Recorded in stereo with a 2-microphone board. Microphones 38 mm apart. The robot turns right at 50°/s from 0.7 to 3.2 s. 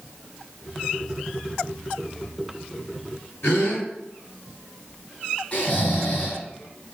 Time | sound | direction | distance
3.4 | a gasp | 80° left | 4 m
5.5 | snoring | 45° left (ahead or behind) | 4 m